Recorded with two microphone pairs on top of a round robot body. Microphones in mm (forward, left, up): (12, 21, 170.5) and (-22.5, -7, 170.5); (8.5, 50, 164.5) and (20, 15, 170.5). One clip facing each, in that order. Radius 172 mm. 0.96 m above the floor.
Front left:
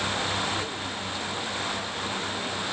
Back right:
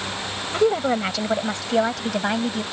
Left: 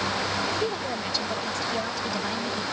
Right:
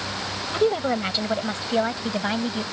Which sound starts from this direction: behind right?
A woman speaking, at 0.5 s.